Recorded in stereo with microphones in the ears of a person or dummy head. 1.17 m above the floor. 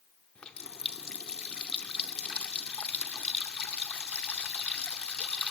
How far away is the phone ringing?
No phone ringing in this recording.